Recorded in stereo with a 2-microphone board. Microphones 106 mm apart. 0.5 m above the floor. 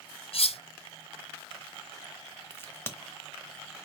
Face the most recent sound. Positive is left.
turn(degrees=20)  # may be behind; listen again after turning